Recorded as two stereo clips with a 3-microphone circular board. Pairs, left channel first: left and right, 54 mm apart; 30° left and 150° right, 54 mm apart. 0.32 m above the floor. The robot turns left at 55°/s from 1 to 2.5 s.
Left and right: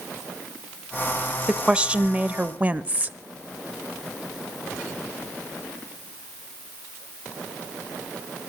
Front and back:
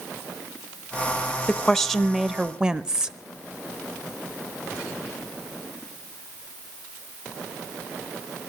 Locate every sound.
1.5 s a woman speaking: 30° right, 0.9 m; by 3.2 s 85° right, 0.9 m